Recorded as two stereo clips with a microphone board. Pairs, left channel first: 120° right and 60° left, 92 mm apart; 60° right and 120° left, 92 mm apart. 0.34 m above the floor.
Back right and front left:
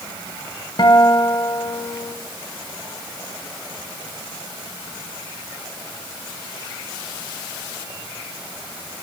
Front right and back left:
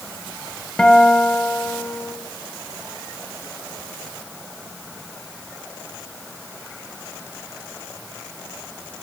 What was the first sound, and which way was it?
A guitar, 140° right.